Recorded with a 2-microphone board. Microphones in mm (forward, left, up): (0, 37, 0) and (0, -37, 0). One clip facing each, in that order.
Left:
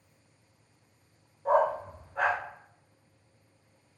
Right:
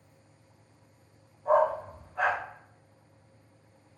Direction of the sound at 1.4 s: 50° left (ahead or behind).